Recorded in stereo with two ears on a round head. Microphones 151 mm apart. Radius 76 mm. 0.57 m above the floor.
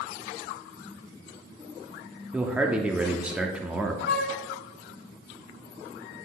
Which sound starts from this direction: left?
A flute, at 4.1 s.